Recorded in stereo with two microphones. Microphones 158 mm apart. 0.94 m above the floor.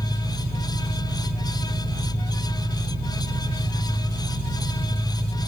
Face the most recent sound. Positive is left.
turn(degrees=-30)  # may be behind; listen again after turning